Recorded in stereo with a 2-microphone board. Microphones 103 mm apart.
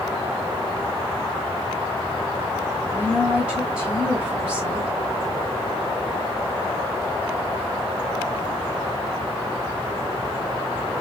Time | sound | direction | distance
2.9 | a woman speaking | 10° right (ahead or behind) | 2.5 m